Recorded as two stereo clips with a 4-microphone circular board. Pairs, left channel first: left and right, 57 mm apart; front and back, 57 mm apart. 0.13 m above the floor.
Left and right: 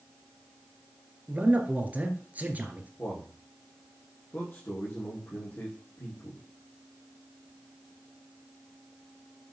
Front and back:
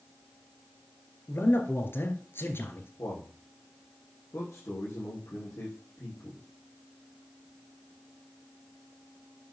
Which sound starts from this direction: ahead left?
A man speaking, at 3.0 s.